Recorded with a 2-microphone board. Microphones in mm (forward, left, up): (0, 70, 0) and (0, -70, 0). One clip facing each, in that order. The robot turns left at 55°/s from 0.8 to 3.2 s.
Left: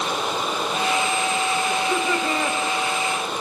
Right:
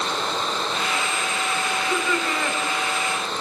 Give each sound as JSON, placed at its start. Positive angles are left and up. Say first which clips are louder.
{"t": 1.7, "sound": "laughter", "louder": "left 2 dB", "azimuth_deg": 60, "distance_m": 3.5}